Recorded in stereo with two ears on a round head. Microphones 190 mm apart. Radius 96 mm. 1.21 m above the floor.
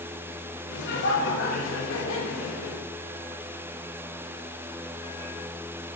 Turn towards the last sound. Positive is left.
turn(degrees=85)